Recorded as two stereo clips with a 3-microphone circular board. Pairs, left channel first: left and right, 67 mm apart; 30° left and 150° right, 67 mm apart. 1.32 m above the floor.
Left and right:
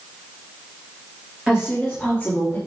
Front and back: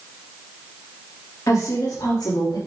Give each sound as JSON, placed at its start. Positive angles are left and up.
{"t": 1.5, "sound": "a woman speaking", "azimuth_deg": -10, "distance_m": 2.5}